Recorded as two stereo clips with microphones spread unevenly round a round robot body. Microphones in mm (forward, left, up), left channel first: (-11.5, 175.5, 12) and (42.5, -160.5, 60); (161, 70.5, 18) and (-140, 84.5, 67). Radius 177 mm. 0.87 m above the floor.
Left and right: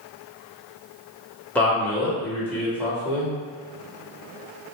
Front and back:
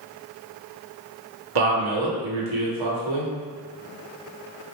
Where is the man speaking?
175° right, 1.5 m.